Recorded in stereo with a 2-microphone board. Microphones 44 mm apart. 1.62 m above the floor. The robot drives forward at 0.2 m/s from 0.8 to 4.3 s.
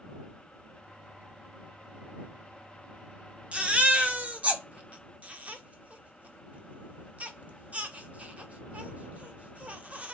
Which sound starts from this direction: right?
A baby crying, at 3.5 s.